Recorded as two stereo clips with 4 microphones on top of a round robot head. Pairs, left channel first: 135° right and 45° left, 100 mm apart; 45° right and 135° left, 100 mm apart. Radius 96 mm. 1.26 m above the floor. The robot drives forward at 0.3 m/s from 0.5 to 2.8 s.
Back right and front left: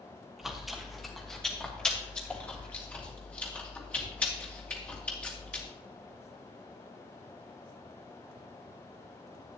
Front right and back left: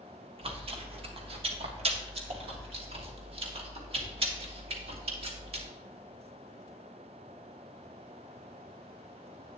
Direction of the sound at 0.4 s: 130° left.